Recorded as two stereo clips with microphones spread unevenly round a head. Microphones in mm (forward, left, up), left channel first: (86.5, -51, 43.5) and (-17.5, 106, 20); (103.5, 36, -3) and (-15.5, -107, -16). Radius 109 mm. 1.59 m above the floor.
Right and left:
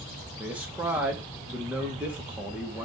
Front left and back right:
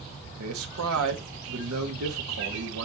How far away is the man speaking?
About 2.5 m.